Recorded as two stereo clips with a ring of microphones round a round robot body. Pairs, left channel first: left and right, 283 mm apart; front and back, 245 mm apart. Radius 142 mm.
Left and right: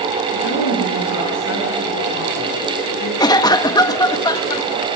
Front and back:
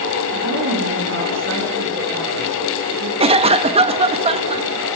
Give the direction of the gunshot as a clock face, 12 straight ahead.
No gunshot in this recording.